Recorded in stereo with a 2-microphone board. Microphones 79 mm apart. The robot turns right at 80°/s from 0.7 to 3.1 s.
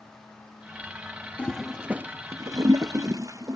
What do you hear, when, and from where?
1.4 s a toilet flushing: 15° left (ahead or behind), 0.5 m; by 3.6 s 45° right (ahead or behind), 0.5 m